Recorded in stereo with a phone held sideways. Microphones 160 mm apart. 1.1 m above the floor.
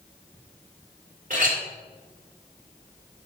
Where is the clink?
55° right (ahead or behind), 1.6 m.